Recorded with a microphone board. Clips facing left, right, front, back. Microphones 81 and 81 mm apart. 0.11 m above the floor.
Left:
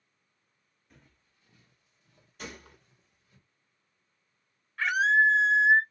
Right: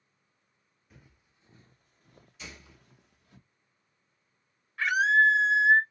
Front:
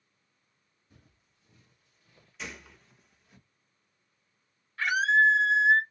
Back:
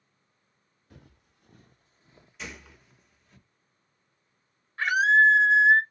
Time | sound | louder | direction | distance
0.9 | footsteps | right 2 dB, back 8 dB | straight behind | 0.7 m
2.4 | a gunshot | left 5 dB, even | 90° left | 0.6 m
4.8 | a scream | right 1 dB, back 3 dB | straight behind | 1.2 m